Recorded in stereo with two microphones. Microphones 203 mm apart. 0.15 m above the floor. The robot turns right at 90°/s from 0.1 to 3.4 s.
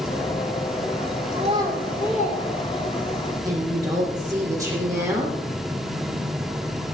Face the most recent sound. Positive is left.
turn(degrees=-15)  # may be behind; listen again after turning